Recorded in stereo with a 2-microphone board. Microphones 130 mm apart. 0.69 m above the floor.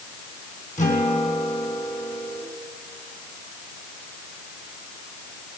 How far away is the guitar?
About 6.5 m.